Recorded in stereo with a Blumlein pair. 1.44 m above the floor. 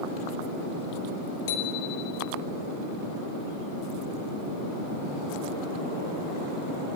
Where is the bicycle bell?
50° left, 2.5 m.